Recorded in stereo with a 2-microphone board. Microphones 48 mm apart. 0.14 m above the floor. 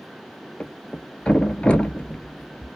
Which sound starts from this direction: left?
A thud, at 0.6 s.